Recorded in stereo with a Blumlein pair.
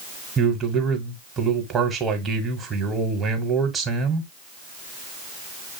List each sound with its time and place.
0.4 s a man speaking: 20° right, 1.4 m